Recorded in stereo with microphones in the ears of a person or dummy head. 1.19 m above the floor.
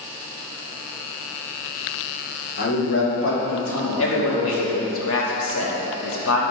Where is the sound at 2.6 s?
50° left (ahead or behind), 1.0 m; by 5.0 s 70° left (ahead or behind), 1.5 m.